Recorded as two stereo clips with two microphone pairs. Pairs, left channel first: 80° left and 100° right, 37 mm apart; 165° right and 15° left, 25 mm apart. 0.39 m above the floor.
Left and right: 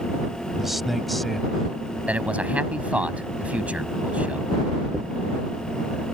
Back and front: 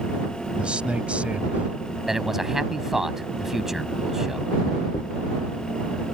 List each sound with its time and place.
0.6 s a man speaking: 20° right; by 2.0 s 5° left
2.1 s a man speaking: 55° right
4.9 s a dropped coin: 165° left